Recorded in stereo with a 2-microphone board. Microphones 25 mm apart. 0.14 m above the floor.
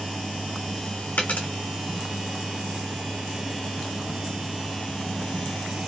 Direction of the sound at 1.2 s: 75° left (ahead or behind).